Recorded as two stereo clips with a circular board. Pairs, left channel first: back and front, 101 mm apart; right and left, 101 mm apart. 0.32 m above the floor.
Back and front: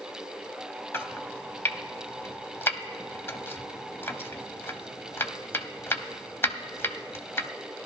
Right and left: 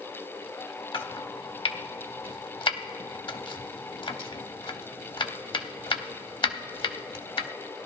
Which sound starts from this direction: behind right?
Chopping, at 0.9 s.